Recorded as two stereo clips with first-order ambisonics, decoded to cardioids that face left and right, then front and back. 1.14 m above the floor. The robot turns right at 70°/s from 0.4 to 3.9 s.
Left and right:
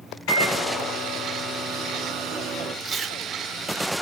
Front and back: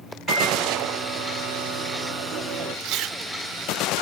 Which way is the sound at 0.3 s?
90° left.